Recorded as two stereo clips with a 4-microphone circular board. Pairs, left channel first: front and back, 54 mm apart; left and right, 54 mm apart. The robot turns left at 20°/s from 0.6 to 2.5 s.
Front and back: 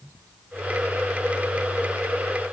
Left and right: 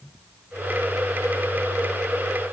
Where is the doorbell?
No doorbell in this recording.